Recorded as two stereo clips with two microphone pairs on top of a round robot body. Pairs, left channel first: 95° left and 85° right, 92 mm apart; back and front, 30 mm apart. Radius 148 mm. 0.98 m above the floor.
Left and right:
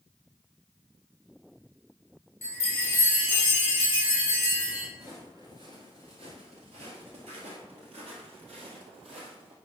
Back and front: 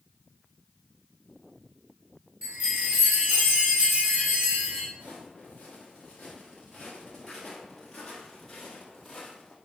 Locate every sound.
2.4 s a chime: 30° left, 3.5 m
4.9 s footsteps: 20° right, 1.2 m; by 9.5 s 95° right, 2.5 m